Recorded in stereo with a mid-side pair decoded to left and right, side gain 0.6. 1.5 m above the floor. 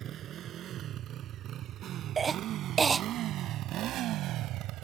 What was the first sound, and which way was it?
A motorcycle, 50° right.